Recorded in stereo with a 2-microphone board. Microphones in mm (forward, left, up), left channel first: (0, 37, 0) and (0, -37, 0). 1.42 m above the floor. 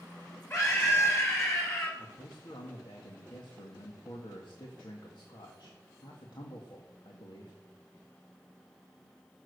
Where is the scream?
35° left (ahead or behind), 7 m; by 1.9 s 40° left (ahead or behind), 8.5 m.